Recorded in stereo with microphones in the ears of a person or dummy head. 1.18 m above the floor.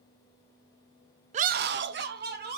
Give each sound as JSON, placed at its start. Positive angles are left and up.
{"t": 1.3, "sound": "a scream", "side_deg": -30, "distance_m": 0.5}